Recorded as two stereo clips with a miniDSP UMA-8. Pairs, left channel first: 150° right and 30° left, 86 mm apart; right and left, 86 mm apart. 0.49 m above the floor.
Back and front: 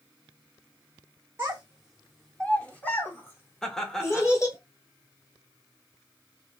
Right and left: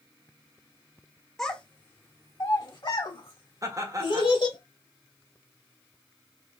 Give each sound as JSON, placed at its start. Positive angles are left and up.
{"t": 1.4, "sound": "a child speaking", "azimuth_deg": -10, "distance_m": 0.6}
{"t": 3.6, "sound": "laughter", "azimuth_deg": 125, "distance_m": 1.1}